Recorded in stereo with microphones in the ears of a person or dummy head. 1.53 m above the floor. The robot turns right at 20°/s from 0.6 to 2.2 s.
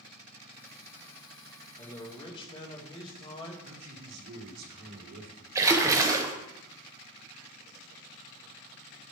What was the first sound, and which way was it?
A man speaking, 20° left (ahead or behind).